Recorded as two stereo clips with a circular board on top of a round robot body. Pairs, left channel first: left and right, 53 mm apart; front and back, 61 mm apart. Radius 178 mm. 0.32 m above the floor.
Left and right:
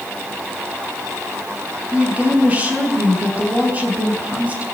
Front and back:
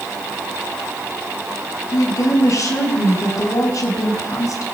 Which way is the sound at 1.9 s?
30° right.